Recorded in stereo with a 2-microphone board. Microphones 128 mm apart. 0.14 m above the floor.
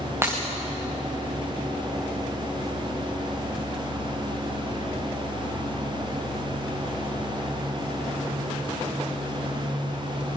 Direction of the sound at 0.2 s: 20° right (ahead or behind).